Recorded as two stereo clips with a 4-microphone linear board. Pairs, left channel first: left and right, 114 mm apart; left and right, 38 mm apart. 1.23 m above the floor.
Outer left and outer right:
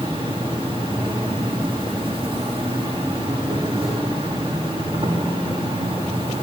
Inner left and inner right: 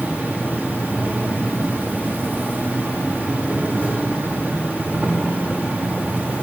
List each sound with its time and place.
0.0 s an insect: 45° right (ahead or behind), 1.8 m